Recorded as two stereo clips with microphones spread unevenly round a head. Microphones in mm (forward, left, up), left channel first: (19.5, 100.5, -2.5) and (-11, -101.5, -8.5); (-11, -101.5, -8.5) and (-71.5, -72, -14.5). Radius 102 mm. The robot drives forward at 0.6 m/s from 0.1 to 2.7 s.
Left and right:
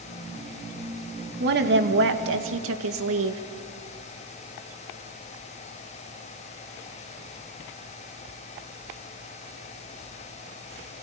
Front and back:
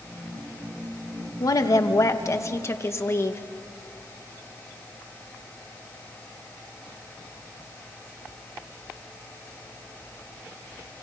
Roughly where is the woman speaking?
Ahead right.